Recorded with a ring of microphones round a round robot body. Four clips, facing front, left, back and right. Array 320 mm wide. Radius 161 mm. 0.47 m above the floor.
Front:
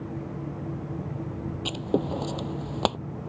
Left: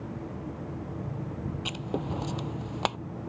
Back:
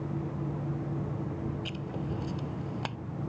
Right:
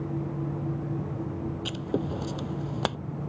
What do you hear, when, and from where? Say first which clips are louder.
1.6 s writing: right 3 dB, front 9 dB; 25° right